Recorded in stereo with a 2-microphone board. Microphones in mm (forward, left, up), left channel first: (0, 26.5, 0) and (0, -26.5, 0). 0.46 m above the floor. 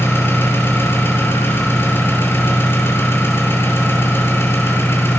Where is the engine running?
50° left (ahead or behind), 2.5 m.